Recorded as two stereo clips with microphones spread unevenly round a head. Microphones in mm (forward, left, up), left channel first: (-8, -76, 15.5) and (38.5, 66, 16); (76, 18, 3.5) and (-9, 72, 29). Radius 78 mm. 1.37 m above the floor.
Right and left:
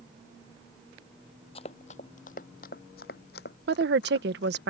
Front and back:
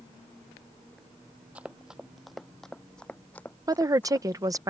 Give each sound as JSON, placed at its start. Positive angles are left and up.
{"t": 1.6, "sound": "running footsteps", "azimuth_deg": -150}
{"t": 3.7, "sound": "a woman speaking", "azimuth_deg": 90}